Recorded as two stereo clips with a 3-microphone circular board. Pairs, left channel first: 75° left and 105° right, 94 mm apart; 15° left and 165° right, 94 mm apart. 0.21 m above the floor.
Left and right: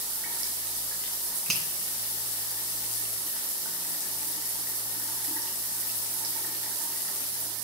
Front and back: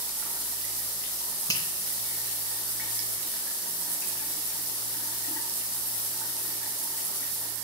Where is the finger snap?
10° right, 2 m.